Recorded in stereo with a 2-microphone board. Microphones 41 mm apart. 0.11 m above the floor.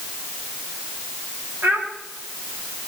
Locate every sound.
1.6 s a child speaking: 60° right (ahead or behind), 8 m